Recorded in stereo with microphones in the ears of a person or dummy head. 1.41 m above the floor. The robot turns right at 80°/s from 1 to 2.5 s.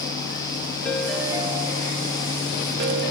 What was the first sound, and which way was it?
A ringtone, 175° left.